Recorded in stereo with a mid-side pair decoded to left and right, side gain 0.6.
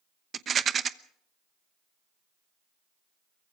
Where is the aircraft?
I don't hear an aircraft.